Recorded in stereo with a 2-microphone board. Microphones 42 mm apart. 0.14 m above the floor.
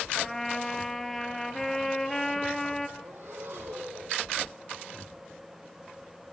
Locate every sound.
0.1 s a trumpet: 5° left (ahead or behind), 1.6 m
3.0 s breathing: 65° right (ahead or behind), 6 m